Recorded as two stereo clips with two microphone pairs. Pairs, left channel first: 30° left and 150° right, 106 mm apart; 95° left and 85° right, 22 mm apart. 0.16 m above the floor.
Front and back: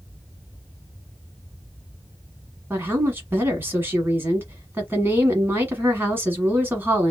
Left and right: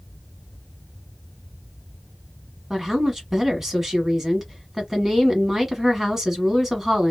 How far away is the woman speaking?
About 1.1 m.